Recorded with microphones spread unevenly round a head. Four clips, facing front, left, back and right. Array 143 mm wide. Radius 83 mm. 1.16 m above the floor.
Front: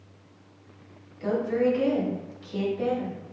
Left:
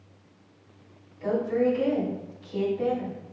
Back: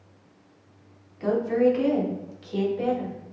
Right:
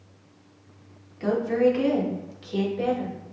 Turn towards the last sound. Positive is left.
turn(degrees=-105)